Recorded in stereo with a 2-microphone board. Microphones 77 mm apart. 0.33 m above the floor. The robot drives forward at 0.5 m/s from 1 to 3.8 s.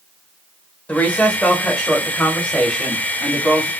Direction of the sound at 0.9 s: 20° left (ahead or behind).